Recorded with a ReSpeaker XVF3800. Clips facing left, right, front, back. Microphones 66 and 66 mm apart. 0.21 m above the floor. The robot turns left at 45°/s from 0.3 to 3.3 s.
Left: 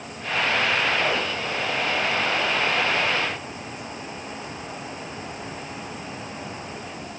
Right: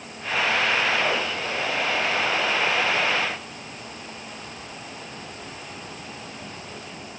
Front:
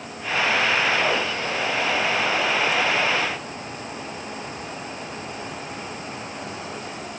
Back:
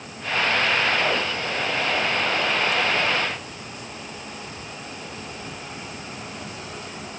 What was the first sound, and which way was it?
Only background noise.